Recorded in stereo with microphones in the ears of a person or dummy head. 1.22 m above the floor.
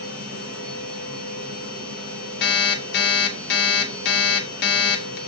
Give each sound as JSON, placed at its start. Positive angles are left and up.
{"t": 0.0, "sound": "a machine running", "side_deg": -45, "distance_m": 2.5}
{"t": 2.4, "sound": "an alarm clock", "side_deg": 60, "distance_m": 0.7}